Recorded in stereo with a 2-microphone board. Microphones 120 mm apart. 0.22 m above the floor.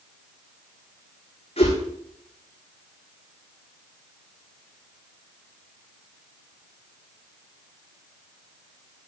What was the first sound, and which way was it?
A whoosh, 60° left (ahead or behind).